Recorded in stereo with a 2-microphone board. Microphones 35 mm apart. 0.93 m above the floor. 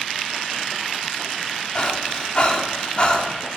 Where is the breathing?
30° left (ahead or behind), 2.5 m.